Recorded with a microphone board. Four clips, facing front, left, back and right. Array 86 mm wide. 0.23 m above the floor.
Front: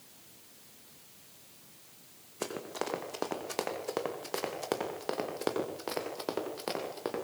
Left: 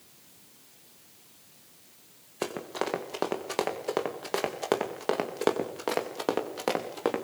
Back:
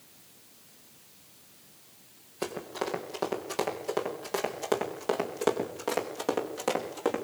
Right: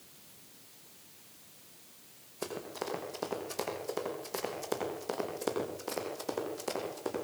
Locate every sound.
2.4 s running footsteps: 80° left, 6.5 m; by 7.2 s 105° left, 6.5 m